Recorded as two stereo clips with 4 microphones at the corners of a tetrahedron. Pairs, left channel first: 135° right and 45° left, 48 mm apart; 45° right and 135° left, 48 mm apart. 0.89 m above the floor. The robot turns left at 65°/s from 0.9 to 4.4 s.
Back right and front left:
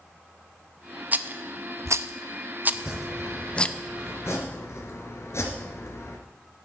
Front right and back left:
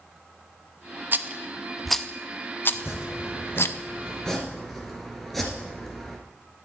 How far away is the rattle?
About 0.5 m.